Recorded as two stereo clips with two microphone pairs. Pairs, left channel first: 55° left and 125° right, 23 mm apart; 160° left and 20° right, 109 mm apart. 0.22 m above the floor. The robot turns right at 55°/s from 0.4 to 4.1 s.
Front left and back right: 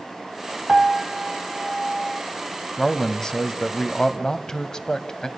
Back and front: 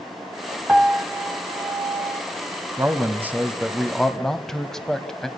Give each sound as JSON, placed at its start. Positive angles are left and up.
{"t": 0.7, "sound": "a piano", "azimuth_deg": -90, "distance_m": 1.3}
{"t": 2.8, "sound": "a man speaking", "azimuth_deg": 5, "distance_m": 1.1}